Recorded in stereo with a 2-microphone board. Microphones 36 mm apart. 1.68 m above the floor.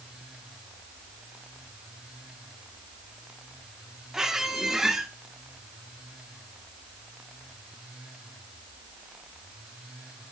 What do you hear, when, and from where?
4.1 s a squeak: 15° right (ahead or behind), 1.6 m